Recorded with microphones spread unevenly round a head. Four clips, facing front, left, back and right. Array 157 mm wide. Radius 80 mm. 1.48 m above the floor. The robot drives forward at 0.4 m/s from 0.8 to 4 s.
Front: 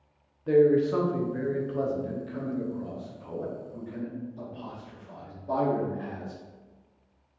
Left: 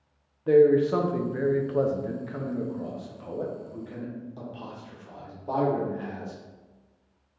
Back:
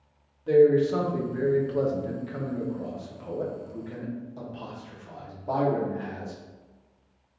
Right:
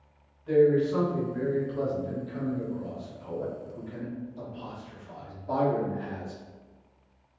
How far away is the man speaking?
About 0.8 m.